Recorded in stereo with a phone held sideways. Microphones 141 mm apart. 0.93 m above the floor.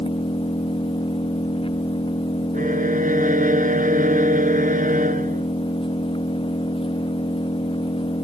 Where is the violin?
80° right.